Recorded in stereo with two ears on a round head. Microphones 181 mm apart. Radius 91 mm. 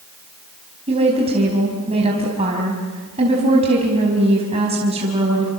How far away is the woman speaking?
About 4.5 m.